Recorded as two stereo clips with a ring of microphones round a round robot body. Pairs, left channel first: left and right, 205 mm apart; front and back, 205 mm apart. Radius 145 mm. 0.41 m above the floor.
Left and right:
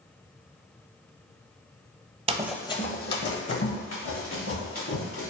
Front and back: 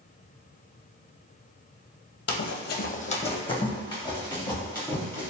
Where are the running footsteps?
35° right, 0.6 m; by 5.3 s 75° left, 3.5 m.